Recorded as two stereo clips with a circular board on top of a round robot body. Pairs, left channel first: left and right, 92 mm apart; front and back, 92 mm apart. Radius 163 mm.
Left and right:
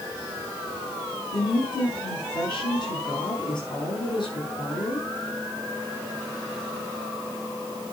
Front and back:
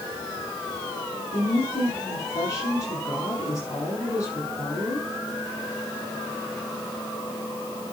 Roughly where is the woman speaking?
Ahead left.